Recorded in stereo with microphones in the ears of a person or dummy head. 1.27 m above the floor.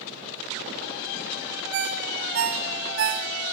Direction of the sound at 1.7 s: 70° right (ahead or behind).